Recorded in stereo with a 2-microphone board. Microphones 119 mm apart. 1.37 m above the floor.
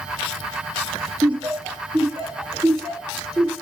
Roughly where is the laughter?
Right.